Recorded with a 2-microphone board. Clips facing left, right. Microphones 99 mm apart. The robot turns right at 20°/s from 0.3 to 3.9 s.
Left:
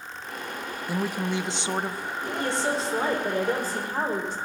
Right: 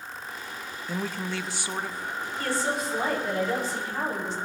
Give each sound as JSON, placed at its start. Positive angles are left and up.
{"t": 0.9, "sound": "a woman speaking", "side_deg": 10, "distance_m": 0.5}
{"t": 2.4, "sound": "a woman speaking", "azimuth_deg": 20, "distance_m": 4.5}